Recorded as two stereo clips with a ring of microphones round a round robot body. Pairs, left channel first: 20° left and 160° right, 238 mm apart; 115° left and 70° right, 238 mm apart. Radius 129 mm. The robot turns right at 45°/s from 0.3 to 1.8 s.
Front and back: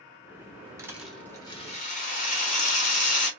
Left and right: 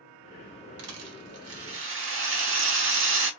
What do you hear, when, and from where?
0.8 s a rattle: 80° right, 0.9 m; by 3.3 s 35° right, 0.9 m